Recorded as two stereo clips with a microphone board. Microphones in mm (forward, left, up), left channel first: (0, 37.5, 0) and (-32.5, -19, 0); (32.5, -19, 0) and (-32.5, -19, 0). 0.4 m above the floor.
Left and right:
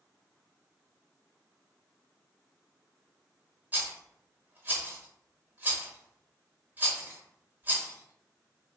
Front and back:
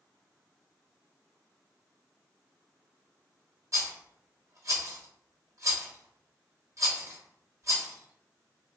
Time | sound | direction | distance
3.7 | a rattle | 175° right | 1.2 m